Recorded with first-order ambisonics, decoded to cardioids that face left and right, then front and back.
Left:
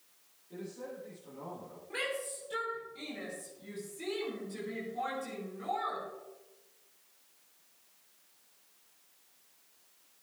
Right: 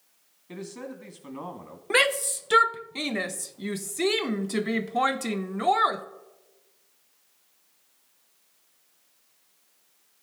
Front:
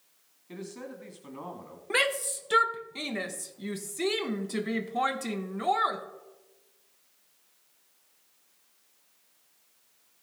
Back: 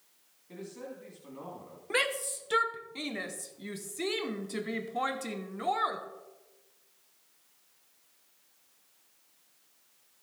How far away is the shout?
About 0.8 m.